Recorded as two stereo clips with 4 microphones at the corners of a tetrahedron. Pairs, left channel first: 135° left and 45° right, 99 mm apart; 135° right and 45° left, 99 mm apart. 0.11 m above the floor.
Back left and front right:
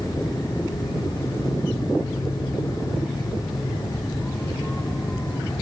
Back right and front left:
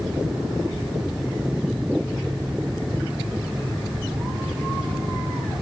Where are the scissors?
I don't hear scissors.